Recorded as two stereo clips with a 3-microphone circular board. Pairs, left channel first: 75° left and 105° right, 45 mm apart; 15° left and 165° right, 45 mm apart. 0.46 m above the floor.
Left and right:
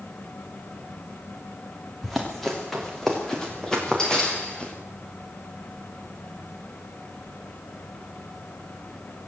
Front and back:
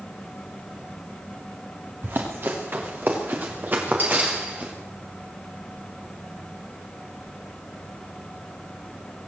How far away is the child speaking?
I don't hear a child speaking.